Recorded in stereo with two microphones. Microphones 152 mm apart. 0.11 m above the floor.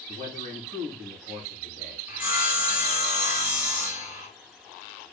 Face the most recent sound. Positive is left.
turn(degrees=-10)  # may be behind; listen again after turning